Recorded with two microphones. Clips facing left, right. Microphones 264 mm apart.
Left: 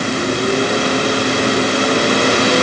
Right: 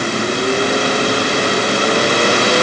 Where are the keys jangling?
I don't hear keys jangling.